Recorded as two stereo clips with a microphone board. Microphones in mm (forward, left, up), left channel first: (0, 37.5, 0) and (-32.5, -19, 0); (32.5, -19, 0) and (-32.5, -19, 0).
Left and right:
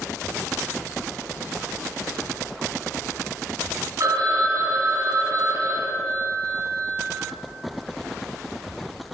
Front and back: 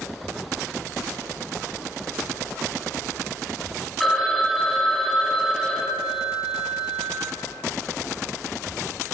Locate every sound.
4.0 s a phone ringing: 90° right, 1.9 m